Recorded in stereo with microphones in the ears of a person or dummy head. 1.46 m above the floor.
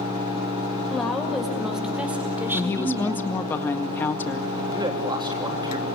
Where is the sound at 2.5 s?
15° left (ahead or behind), 1.7 m.